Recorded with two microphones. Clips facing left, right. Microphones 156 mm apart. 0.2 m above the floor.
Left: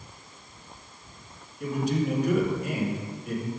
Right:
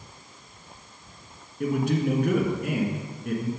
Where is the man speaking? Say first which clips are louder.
Right 2 dB; 60° right (ahead or behind), 2.5 m.